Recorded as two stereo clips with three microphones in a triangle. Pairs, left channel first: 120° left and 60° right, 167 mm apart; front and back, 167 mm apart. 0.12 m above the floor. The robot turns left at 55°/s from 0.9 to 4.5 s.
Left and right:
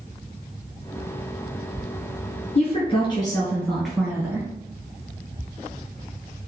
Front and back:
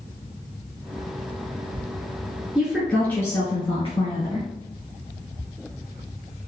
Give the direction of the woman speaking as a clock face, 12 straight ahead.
9 o'clock.